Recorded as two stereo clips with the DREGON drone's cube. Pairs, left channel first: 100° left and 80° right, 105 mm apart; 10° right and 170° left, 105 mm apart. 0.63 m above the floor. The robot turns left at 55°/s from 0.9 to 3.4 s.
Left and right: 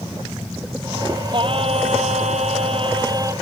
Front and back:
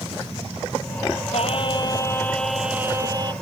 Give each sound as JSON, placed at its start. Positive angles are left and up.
{"t": 1.3, "sound": "singing", "azimuth_deg": -35}